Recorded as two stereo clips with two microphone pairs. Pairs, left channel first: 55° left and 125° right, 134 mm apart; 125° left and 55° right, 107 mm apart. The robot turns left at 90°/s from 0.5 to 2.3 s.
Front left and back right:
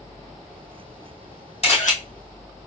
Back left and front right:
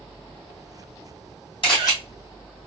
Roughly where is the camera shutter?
Left.